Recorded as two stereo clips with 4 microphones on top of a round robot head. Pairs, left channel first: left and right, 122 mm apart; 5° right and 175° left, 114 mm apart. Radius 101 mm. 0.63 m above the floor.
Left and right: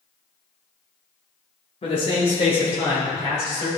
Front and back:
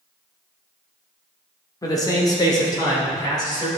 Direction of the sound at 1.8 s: 50° left.